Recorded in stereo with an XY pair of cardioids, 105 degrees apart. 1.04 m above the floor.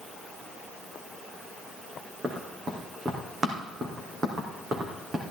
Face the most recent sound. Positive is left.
turn(degrees=-40)